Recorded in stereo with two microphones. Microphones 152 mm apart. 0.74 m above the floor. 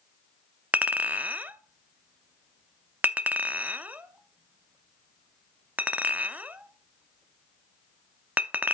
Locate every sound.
0.7 s a clink: 10° right (ahead or behind), 0.5 m